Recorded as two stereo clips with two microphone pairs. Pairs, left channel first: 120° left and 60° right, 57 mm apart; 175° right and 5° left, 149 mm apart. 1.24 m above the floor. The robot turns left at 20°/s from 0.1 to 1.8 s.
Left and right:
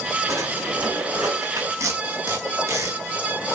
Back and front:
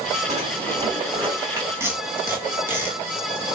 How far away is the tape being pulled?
About 2.5 m.